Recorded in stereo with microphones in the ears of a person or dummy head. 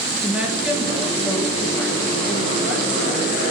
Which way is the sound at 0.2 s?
5° right (ahead or behind).